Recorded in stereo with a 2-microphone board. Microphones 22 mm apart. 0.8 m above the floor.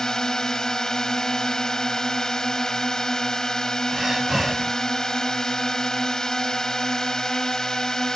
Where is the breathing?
25° right (ahead or behind).